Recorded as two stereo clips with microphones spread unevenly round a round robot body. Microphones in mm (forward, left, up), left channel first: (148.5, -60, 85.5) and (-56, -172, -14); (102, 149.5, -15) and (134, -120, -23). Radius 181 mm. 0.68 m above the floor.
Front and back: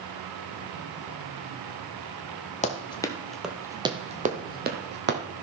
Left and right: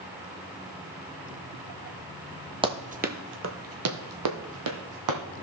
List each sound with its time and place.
2.6 s running footsteps: 10° right, 1.2 m; by 5.2 s 100° right, 1.9 m